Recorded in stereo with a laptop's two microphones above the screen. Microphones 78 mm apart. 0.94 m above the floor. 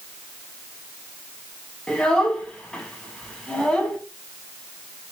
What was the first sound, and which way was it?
A child speaking, 10° left (ahead or behind).